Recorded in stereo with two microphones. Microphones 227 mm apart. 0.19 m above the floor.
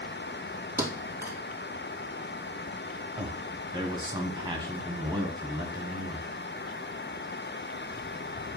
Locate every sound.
0.8 s a thud: 10° right (ahead or behind), 1.7 m
3.2 s a man speaking: 20° right (ahead or behind), 1.2 m